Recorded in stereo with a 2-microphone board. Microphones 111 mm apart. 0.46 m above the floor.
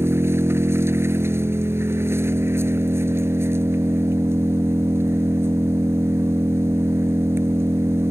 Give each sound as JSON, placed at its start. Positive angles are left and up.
{"t": 0.0, "sound": "an engine running", "side_deg": -20}